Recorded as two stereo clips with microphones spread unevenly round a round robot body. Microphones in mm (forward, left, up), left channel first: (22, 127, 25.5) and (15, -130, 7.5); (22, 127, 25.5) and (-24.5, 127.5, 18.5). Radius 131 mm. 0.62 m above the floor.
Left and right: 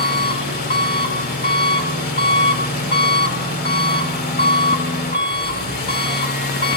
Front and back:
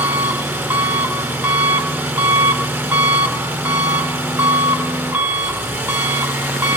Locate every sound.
0.0 s an engine running: 145° left, 2.5 m